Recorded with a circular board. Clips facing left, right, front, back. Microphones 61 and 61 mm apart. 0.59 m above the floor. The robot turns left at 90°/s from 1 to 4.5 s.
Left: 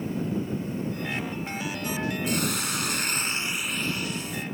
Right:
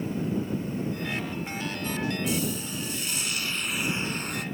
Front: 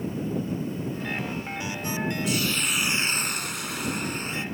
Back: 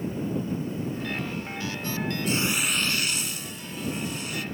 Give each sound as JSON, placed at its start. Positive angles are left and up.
{"t": 2.3, "sound": "a hiss", "azimuth_deg": 130}